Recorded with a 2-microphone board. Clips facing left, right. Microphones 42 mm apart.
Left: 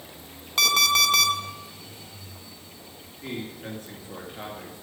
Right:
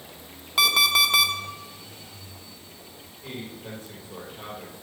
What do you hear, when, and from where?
0.6 s an alarm clock: 10° right (ahead or behind), 0.8 m
3.2 s a man speaking: 80° left, 3 m